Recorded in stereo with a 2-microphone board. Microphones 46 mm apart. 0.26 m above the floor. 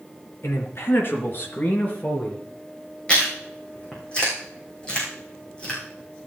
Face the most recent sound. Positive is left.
turn(degrees=25)  # may be behind; listen again after turning